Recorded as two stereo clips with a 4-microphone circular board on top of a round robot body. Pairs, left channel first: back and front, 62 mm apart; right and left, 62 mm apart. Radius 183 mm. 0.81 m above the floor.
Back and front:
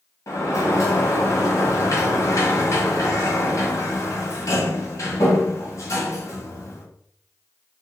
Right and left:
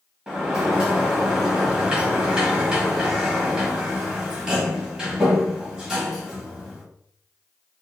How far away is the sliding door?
About 1.5 m.